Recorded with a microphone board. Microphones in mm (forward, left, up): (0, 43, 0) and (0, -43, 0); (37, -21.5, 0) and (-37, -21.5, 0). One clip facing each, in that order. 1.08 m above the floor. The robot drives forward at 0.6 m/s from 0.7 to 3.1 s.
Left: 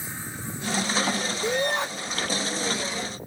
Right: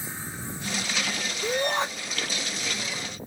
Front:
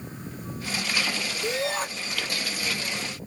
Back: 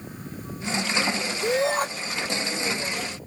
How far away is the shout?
About 3 m.